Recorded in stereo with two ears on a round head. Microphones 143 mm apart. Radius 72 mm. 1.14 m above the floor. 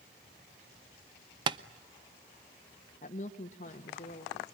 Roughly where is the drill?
No drill in this recording.